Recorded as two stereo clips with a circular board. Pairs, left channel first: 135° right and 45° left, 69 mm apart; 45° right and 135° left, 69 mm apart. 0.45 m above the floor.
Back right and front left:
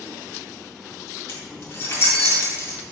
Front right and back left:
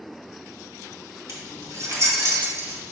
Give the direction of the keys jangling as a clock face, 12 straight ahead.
6 o'clock.